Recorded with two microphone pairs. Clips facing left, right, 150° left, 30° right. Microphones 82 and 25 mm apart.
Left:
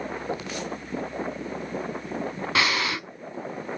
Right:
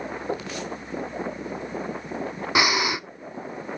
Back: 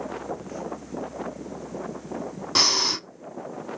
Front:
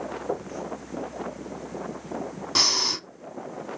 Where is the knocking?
5° right, 6 m.